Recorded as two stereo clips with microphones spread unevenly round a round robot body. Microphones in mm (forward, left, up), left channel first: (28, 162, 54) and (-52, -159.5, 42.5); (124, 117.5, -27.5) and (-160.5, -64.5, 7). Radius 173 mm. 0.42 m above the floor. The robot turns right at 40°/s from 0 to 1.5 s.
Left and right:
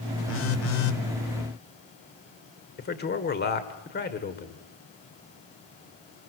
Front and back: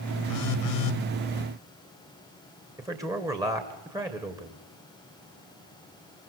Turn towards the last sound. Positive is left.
turn(degrees=130)